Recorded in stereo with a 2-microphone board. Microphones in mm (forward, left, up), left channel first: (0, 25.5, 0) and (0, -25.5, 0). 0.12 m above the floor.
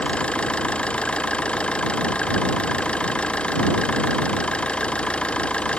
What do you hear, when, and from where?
0.0 s an engine running: 20° left (ahead or behind)